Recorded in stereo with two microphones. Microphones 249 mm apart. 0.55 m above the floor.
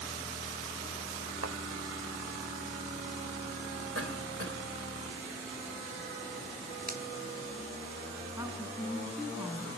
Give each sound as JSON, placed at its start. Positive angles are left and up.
{"t": 1.4, "sound": "a thud", "side_deg": -80, "distance_m": 1.1}
{"t": 4.0, "sound": "a cough", "side_deg": -65, "distance_m": 3.0}
{"t": 6.9, "sound": "a finger snap", "side_deg": -35, "distance_m": 0.7}
{"t": 8.4, "sound": "a woman speaking", "side_deg": -10, "distance_m": 4.5}